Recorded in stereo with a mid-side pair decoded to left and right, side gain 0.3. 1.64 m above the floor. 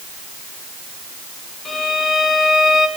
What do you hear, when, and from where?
1.6 s a violin: 70° left, 2 m